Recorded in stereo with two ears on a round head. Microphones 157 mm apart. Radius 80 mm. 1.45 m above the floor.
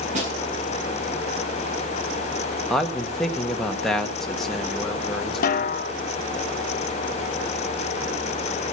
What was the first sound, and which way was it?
A snare drum, 45° right (ahead or behind).